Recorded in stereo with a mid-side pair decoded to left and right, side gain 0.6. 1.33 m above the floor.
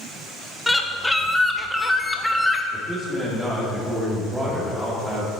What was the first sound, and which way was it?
A bird, 5° left.